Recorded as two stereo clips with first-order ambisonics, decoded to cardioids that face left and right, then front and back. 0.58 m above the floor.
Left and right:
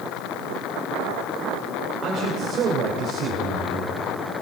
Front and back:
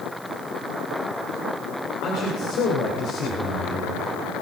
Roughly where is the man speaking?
Ahead right.